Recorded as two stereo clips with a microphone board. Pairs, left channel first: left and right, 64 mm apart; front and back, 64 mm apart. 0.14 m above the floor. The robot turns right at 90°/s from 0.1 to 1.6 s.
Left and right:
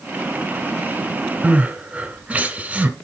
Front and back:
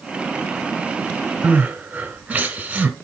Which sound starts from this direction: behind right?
Crying, at 1.4 s.